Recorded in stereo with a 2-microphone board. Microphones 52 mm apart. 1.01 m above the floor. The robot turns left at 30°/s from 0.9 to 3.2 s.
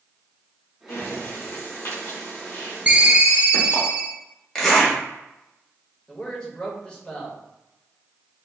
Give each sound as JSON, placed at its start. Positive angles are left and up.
{"t": 0.9, "sound": "breathing", "side_deg": 75, "distance_m": 2.0}
{"t": 2.9, "sound": "a ringtone", "side_deg": -25, "distance_m": 0.6}
{"t": 4.5, "sound": "a zipper", "side_deg": 15, "distance_m": 1.5}
{"t": 6.1, "sound": "a man speaking", "side_deg": 15, "distance_m": 1.4}